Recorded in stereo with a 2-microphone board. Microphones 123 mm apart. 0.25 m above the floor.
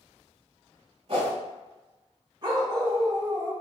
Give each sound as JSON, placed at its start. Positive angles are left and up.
{"t": 1.1, "sound": "a whoosh", "side_deg": -50, "distance_m": 1.2}
{"t": 2.4, "sound": "a dog barking", "side_deg": -40, "distance_m": 0.8}